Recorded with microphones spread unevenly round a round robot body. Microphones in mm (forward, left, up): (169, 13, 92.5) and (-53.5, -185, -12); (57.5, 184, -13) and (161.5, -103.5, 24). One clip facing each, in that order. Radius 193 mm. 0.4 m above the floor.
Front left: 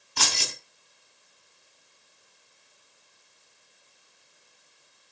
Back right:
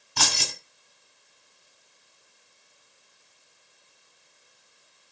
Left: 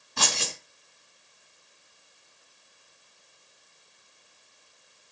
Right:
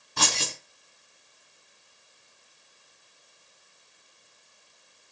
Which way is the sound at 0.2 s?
160° right.